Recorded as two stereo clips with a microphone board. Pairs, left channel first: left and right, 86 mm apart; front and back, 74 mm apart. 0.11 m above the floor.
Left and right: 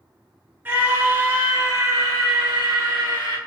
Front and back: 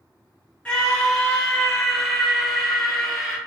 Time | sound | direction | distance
0.7 | a scream | 60° right | 1.6 m